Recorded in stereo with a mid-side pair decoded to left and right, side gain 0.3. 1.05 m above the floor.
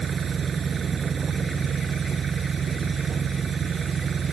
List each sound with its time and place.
0.0 s an engine running: 65° right